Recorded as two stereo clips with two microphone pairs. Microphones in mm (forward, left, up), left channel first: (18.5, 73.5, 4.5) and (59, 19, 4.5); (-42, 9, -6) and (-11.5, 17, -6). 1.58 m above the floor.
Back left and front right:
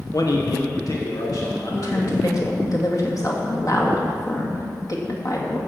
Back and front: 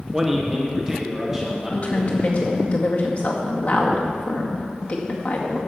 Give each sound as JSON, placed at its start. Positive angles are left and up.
{"t": 0.1, "sound": "a man speaking", "azimuth_deg": 100, "distance_m": 0.8}
{"t": 1.7, "sound": "a woman speaking", "azimuth_deg": 160, "distance_m": 2.0}